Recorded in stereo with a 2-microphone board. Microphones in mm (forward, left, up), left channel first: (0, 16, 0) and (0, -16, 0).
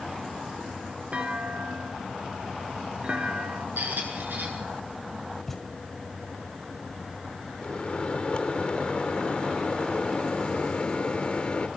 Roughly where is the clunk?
Right.